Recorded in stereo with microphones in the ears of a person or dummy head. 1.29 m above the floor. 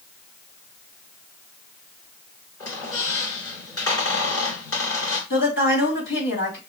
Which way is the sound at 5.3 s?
60° left (ahead or behind).